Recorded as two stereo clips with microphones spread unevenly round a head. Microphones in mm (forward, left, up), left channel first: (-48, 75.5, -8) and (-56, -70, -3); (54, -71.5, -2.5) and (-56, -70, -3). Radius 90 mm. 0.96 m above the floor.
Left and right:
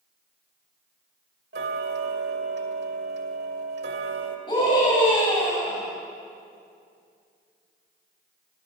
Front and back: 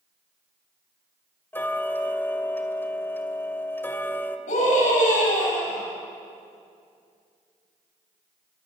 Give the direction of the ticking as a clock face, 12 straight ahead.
2 o'clock.